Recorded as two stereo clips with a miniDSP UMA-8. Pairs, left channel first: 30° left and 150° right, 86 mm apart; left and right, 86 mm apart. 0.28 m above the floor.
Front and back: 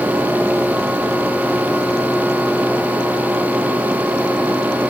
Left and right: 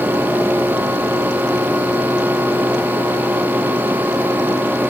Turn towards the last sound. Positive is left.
No sound to turn to.